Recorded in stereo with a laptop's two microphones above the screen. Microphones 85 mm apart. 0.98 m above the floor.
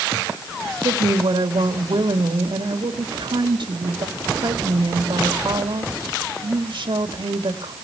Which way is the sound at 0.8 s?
70° right (ahead or behind).